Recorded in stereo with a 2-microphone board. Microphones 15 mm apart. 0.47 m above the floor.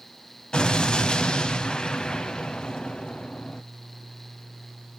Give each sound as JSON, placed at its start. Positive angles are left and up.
{"t": 0.5, "sound": "an explosion", "side_deg": 70, "distance_m": 0.6}